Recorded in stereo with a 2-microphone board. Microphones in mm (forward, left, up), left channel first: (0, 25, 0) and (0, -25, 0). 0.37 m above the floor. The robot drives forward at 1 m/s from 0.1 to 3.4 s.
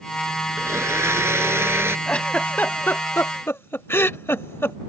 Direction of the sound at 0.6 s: 75° right (ahead or behind).